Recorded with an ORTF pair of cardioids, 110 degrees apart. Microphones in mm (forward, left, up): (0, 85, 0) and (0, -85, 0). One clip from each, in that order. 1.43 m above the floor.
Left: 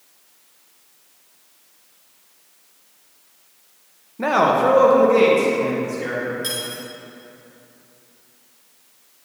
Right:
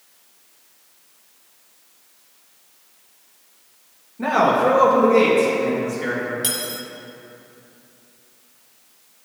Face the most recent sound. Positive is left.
turn(degrees=-45)